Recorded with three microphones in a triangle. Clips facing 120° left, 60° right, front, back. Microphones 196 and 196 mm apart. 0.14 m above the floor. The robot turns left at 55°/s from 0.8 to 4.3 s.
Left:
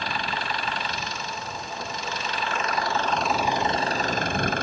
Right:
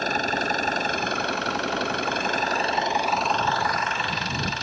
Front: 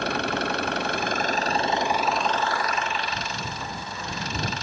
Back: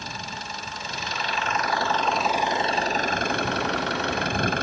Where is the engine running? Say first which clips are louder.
Right 5 dB, front 11 dB; 15° right; by 4.6 s 150° left.